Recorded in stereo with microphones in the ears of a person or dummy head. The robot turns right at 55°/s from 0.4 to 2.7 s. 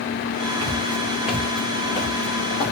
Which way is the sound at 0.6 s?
40° right (ahead or behind).